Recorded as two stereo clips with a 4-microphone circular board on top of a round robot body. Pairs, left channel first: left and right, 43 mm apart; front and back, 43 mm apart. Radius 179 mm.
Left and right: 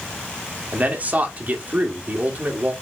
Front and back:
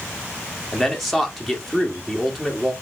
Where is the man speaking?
90° right, 1.7 m.